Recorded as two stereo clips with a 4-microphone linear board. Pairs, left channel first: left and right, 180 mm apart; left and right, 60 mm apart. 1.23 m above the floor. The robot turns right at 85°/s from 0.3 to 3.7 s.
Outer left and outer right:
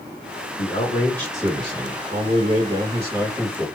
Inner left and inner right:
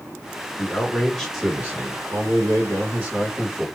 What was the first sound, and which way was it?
A man speaking, 130° left.